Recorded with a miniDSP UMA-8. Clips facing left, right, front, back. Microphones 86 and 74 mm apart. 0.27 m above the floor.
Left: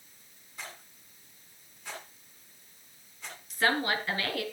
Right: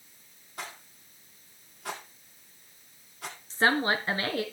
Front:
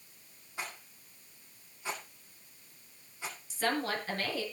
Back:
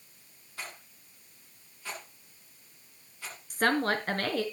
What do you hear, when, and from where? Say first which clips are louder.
0.6 s a rattle: right 4 dB, front 2 dB; 70° right, 8 m
3.5 s a woman speaking: right 3 dB, back 6 dB; 150° right, 3.5 m